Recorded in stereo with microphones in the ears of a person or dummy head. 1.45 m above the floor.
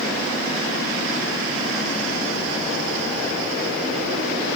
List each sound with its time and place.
Only background noise.